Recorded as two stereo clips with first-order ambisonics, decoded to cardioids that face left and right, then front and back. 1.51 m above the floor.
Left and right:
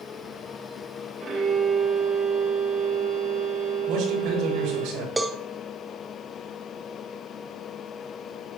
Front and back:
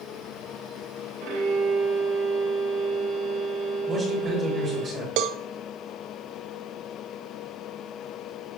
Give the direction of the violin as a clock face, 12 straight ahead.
5 o'clock.